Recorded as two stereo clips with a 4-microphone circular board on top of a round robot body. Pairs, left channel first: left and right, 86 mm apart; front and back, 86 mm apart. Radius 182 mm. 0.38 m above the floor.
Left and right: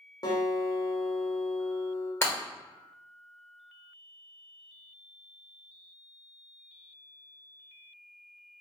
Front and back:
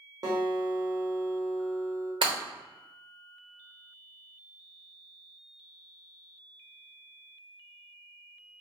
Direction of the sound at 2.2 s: 155° left.